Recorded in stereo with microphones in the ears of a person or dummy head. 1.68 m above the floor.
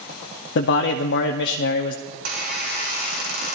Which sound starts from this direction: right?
A squeak, at 2.1 s.